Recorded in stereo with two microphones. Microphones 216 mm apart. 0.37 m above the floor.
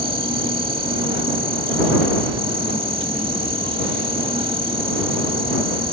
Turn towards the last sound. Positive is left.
turn(degrees=-25)  # may be behind; listen again after turning